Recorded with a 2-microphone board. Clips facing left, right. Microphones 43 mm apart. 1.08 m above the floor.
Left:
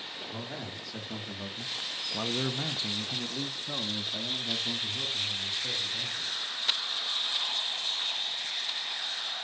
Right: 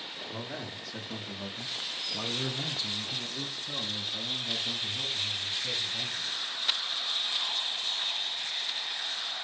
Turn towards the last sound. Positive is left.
turn(degrees=15)  # may be behind; listen again after turning